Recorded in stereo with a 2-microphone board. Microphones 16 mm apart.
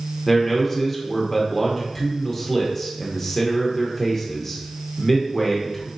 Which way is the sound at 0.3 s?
15° left (ahead or behind).